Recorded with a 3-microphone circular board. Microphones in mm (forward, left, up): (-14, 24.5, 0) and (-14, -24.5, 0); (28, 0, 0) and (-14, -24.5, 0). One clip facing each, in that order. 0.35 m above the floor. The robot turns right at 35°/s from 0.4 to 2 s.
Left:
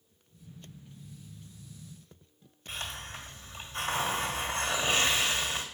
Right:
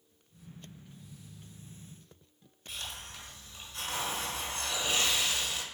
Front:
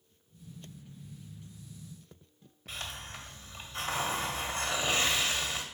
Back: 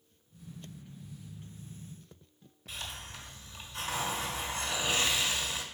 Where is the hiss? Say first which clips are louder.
Left 4 dB, front 1 dB; 65° left, 1.6 m.